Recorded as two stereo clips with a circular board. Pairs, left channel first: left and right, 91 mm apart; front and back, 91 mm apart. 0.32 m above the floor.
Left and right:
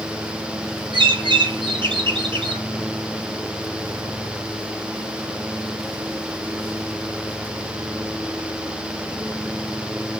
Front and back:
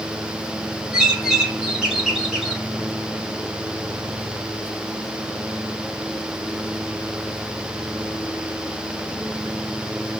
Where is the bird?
95° right, 1.0 m.